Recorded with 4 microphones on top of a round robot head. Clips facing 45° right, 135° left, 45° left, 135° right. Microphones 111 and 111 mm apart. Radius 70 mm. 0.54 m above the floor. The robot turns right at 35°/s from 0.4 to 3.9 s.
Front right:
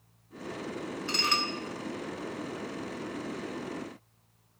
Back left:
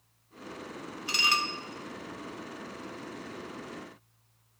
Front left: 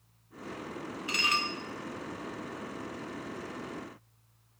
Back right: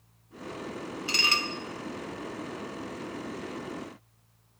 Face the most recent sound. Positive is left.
turn(degrees=-55)